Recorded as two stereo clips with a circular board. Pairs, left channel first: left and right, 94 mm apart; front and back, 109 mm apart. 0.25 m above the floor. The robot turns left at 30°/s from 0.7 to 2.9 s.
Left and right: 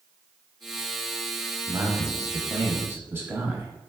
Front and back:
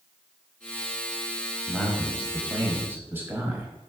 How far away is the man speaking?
About 1.0 m.